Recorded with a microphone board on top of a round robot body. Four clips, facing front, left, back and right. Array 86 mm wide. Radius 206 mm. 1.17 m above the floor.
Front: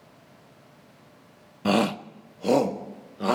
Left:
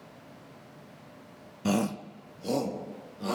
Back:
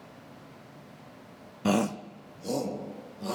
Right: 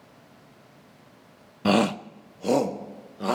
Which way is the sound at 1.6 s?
70° right.